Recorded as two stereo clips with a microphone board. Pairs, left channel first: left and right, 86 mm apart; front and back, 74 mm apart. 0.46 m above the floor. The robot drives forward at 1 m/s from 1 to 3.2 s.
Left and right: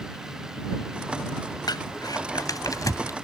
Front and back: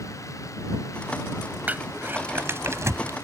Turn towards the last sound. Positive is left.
turn(degrees=135)